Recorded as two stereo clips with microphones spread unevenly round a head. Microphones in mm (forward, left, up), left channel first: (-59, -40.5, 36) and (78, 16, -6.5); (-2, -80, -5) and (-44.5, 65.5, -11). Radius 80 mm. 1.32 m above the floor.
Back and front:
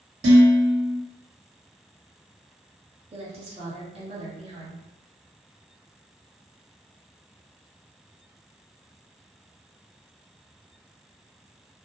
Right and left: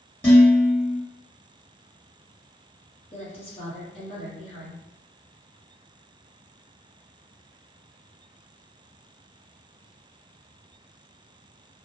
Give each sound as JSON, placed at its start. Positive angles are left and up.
{"t": 0.2, "sound": "dishes clattering", "azimuth_deg": 0, "distance_m": 1.3}
{"t": 3.1, "sound": "a woman speaking", "azimuth_deg": -15, "distance_m": 1.0}